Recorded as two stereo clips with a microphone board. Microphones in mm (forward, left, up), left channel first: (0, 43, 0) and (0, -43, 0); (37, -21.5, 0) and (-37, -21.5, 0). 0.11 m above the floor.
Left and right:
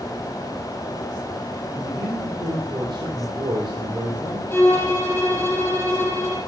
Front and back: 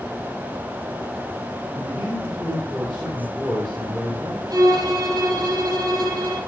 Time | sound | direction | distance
1.8 | a man speaking | 115° right | 3.5 m
4.5 | a violin | 150° left | 4 m